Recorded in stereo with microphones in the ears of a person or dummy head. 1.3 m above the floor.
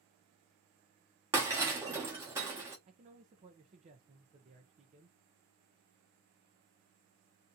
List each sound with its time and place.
1.3 s breaking glass: 15° right (ahead or behind), 1.1 m
2.9 s a man speaking: 35° right (ahead or behind), 0.7 m